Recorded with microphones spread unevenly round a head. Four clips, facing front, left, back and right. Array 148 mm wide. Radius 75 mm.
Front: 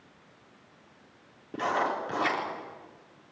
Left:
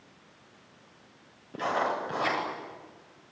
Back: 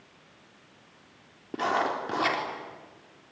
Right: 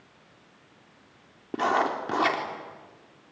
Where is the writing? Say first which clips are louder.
Right 4 dB, back 1 dB; 105° right, 4 m.